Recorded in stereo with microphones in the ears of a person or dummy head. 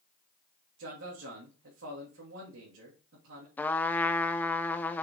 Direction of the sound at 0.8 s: 75° right (ahead or behind).